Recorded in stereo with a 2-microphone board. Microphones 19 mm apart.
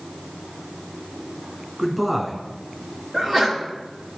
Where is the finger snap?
I don't hear a finger snap.